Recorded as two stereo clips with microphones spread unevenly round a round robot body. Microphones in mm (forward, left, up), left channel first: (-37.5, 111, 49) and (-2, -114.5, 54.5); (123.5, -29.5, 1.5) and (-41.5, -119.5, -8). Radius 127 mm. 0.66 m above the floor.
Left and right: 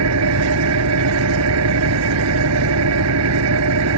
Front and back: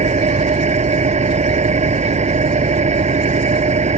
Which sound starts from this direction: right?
An engine running, at 0.0 s.